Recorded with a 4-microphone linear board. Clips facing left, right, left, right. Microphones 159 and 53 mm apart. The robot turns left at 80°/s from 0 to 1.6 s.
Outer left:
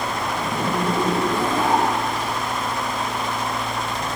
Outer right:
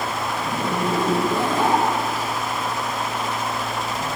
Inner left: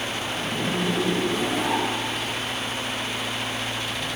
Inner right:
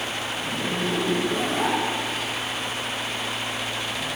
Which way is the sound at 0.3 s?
50° left (ahead or behind).